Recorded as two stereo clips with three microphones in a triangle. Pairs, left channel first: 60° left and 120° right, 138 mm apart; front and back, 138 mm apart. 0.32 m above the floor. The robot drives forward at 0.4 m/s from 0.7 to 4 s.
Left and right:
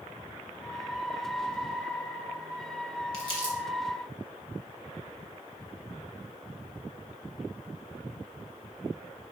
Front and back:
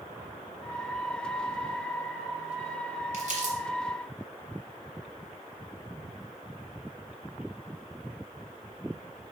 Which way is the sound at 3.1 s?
160° right.